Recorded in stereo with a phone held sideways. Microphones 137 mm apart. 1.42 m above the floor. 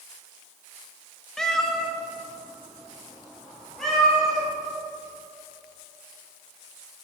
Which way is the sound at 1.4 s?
5° left (ahead or behind).